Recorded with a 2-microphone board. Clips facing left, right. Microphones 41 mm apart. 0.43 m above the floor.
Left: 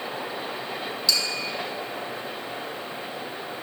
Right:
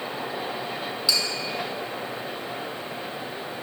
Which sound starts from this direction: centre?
Tapping, at 1.1 s.